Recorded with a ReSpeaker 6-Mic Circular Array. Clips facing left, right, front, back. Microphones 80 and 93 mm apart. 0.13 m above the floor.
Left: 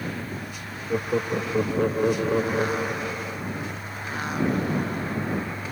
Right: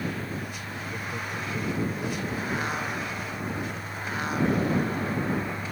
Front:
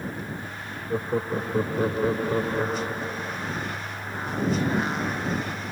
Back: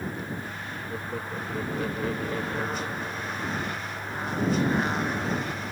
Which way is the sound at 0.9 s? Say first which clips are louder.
Left 12 dB, front 10 dB; 55° left.